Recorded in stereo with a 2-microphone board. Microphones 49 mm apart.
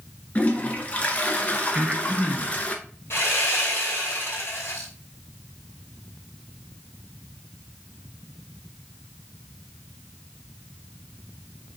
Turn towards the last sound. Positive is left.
turn(degrees=55)  # may be behind; listen again after turning